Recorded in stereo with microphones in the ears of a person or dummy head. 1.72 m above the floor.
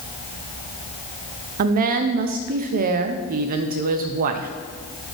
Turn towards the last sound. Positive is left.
turn(degrees=-45)  # may be behind; listen again after turning